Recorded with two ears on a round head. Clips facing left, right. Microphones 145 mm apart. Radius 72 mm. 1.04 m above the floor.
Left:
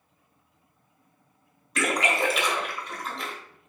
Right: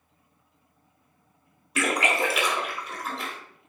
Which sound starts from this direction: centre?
A splash, at 1.8 s.